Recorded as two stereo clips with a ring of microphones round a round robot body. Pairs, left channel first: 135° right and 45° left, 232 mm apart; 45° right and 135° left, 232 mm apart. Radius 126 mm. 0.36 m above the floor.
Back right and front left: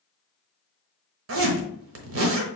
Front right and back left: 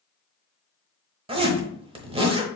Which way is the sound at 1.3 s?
70° left.